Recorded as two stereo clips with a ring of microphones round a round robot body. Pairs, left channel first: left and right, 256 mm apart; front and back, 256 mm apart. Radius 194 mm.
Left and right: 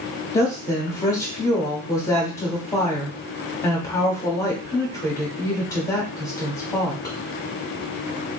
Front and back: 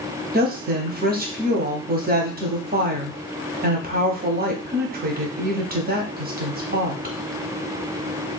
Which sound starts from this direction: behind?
A woman speaking, at 0.3 s.